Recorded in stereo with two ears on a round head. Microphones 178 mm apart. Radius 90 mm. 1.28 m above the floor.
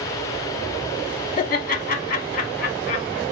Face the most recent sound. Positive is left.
turn(degrees=45)  # may be behind; listen again after turning